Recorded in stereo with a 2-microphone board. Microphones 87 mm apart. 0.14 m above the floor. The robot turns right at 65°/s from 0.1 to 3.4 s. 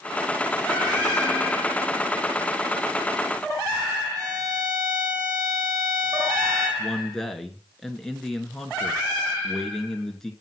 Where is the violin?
45° right (ahead or behind), 3.5 m.